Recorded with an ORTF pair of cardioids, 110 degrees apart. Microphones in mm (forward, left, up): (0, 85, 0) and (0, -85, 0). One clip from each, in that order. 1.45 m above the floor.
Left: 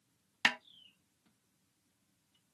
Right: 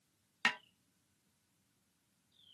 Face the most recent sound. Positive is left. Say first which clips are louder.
# left 3 dB
turn(degrees=25)